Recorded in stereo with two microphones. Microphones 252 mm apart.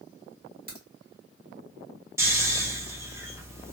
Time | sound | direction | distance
0.7 | a crack | 35° right (ahead or behind) | 1.5 m
2.2 | snoring | 10° right (ahead or behind) | 0.8 m